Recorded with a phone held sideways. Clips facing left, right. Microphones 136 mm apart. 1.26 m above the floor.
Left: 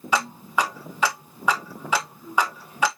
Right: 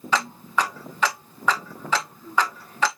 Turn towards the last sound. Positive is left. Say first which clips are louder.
# even
turn(degrees=10)  # may be behind; listen again after turning